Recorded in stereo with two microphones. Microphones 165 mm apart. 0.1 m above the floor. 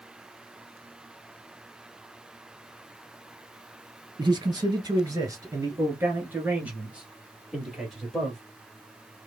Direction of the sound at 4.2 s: 30° right (ahead or behind).